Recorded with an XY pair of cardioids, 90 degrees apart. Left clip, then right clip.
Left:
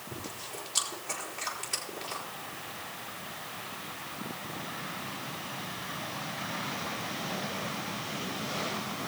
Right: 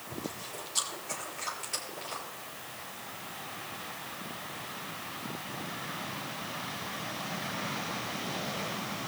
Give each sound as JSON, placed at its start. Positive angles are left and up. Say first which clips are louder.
{"t": 0.1, "sound": "chewing", "louder": "right 1 dB", "azimuth_deg": 40, "distance_m": 4.0}